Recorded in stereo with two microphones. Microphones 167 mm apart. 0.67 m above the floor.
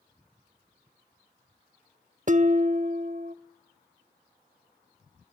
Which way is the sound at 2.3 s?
50° right (ahead or behind).